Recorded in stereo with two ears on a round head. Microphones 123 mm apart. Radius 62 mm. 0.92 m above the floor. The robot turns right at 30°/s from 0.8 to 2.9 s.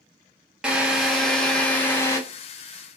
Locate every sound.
0.6 s a drill: 10° right, 0.7 m; by 2.2 s 30° left, 0.7 m